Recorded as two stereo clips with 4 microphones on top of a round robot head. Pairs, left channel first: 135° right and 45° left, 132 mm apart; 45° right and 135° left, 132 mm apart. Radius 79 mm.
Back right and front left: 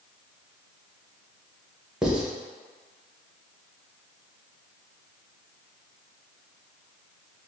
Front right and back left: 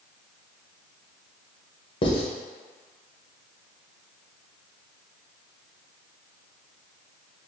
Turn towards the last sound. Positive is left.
turn(degrees=-35)